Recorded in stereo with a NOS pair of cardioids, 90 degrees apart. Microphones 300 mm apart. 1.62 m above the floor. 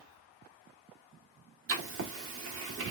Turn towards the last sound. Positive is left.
turn(degrees=-45)